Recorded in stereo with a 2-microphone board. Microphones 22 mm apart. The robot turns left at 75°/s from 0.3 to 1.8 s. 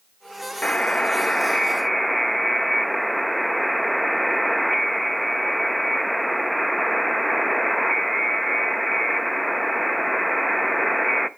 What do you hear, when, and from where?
0.6 s a buzzer: 85° left, 0.6 m; by 11.3 s 5° right, 0.6 m